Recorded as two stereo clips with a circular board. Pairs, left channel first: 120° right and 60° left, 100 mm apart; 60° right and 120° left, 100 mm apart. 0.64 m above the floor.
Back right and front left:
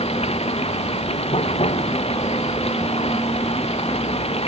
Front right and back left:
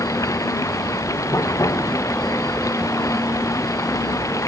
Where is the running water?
115° right.